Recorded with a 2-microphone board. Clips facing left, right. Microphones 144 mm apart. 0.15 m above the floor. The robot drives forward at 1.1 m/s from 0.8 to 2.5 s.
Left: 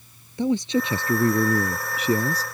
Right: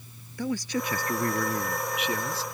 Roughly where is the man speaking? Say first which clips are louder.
Left 7 dB; left.